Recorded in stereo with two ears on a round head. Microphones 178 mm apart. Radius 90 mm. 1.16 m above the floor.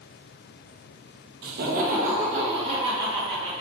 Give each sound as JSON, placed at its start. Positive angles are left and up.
{"t": 1.4, "sound": "laughter", "side_deg": -60, "distance_m": 0.6}